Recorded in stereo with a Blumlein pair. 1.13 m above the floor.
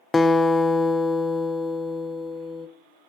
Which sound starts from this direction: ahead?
A guitar, at 0.1 s.